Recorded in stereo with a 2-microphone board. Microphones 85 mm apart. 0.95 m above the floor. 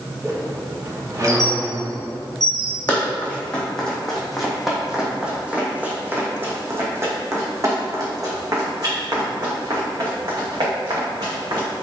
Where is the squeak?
45° right (ahead or behind), 2 m.